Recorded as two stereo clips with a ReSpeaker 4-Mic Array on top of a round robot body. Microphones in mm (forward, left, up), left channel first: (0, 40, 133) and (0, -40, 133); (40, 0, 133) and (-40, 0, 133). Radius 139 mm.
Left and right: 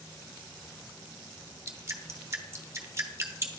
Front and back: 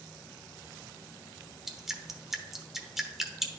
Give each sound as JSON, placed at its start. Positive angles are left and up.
{"t": 1.7, "sound": "dripping", "azimuth_deg": -95, "distance_m": 1.2}